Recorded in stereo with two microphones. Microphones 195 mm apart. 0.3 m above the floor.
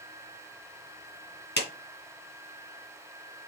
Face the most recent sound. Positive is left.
turn(degrees=60)  # may be behind; listen again after turning